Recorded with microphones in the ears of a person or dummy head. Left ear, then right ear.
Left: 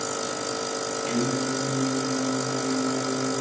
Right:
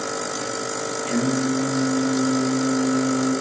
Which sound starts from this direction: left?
Singing, at 1.1 s.